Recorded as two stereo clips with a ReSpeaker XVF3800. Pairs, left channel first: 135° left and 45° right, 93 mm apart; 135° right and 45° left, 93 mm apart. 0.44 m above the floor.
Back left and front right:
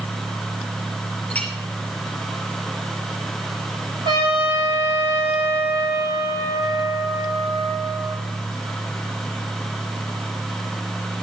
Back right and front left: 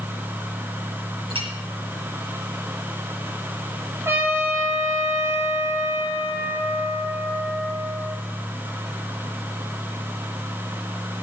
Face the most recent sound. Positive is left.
turn(degrees=-15)